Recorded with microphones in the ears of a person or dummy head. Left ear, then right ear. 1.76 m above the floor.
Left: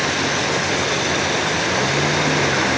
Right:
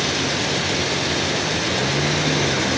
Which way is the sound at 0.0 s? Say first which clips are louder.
Left 2 dB; 30° left (ahead or behind).